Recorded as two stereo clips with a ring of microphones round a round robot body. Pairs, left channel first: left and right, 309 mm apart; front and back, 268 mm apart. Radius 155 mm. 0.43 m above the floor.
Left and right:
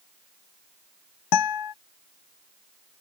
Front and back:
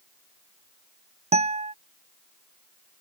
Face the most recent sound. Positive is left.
turn(degrees=115)